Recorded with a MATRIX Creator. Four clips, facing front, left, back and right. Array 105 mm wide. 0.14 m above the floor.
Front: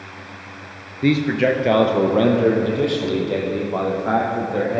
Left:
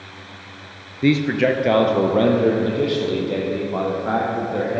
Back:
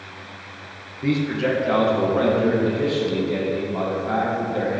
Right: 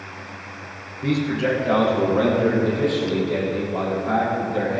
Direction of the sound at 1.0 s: 55° left.